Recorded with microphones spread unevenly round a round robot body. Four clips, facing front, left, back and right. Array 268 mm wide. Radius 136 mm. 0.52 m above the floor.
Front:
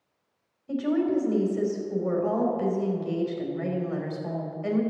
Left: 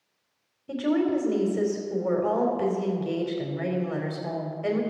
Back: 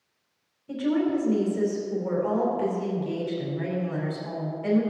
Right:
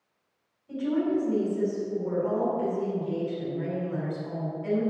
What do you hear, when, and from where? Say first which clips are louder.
0.7 s a woman speaking: left 2 dB, even; 85° left, 3 m